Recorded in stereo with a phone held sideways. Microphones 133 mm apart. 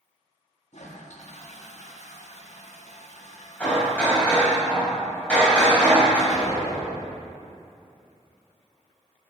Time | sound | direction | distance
0.7 | a toilet flushing | 60° left (ahead or behind) | 1.1 m
3.6 | hammering | 10° left (ahead or behind) | 4 m
6.3 | an explosion | 60° left (ahead or behind) | 1.6 m